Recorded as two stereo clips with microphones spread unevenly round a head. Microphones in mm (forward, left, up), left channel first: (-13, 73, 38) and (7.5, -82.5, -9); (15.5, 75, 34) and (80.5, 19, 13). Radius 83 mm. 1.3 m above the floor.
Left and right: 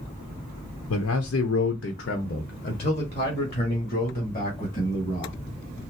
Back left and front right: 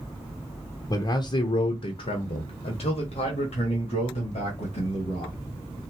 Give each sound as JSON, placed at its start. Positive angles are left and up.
{"t": 0.9, "sound": "a man speaking", "azimuth_deg": 90, "distance_m": 0.7}